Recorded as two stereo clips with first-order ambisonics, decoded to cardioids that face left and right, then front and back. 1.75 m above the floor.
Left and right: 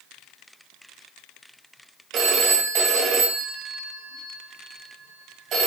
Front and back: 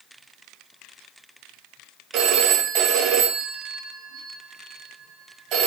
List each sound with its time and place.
2.1 s a phone ringing: 140° right, 1.7 m